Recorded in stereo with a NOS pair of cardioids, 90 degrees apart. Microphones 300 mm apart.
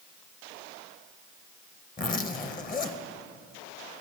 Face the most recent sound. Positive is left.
turn(degrees=30)